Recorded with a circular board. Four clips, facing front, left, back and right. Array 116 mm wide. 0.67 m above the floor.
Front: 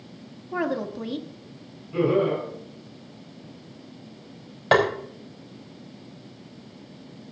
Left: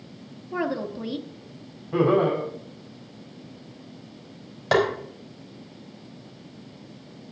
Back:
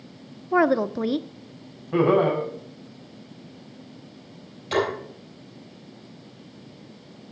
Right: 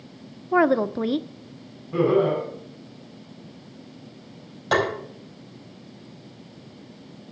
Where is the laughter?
155° left, 5.5 m.